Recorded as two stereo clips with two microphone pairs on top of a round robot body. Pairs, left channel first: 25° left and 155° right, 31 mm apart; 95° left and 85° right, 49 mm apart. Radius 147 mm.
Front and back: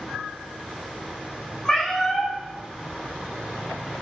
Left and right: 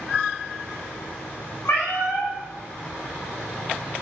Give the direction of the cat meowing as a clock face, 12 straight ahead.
8 o'clock.